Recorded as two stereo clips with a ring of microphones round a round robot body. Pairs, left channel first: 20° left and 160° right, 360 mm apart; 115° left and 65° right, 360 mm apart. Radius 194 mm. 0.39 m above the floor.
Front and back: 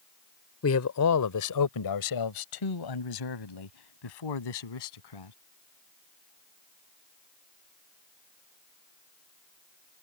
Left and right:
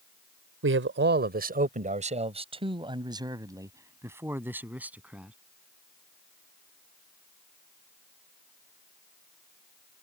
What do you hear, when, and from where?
0.6 s a man speaking: 20° right; by 5.3 s 20° left